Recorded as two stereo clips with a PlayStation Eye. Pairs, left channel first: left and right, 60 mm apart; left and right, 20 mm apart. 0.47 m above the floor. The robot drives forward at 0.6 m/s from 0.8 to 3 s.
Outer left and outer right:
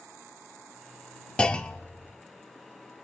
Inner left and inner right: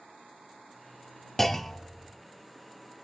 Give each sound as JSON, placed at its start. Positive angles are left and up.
{"t": 1.4, "sound": "a clunk", "side_deg": 15, "distance_m": 0.5}